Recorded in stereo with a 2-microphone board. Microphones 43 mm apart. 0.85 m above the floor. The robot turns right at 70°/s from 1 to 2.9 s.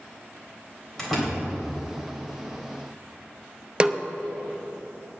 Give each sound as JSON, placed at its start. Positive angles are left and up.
{"t": 1.0, "sound": "a door slam", "side_deg": 10, "distance_m": 3.5}
{"t": 3.8, "sound": "a snare drum", "side_deg": -20, "distance_m": 0.5}